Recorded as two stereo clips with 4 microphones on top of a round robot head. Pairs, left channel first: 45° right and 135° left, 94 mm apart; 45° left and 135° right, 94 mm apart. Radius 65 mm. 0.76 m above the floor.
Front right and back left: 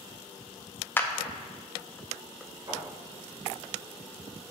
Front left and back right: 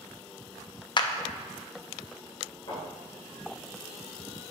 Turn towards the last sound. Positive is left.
turn(degrees=90)